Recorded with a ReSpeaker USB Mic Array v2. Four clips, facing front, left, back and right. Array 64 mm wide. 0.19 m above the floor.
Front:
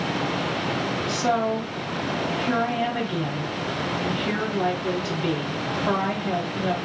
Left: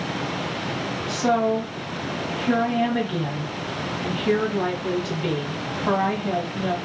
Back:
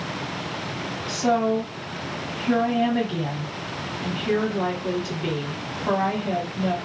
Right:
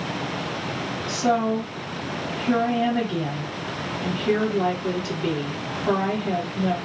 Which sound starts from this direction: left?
A woman speaking, at 1.1 s.